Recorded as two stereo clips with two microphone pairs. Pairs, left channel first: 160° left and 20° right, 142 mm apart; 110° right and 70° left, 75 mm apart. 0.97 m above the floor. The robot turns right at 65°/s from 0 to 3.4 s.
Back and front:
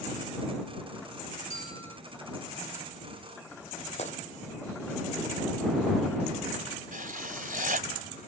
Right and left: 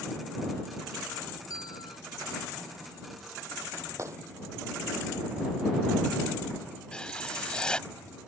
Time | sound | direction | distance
1.5 | a bell | 155° right | ?
4.0 | a gunshot | 120° left | ?
6.9 | writing | 35° right | ?